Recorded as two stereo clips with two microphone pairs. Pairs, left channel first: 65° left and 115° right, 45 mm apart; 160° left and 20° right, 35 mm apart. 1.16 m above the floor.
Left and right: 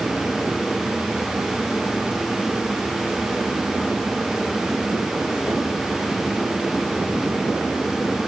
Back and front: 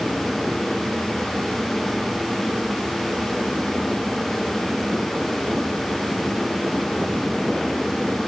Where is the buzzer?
I don't hear a buzzer.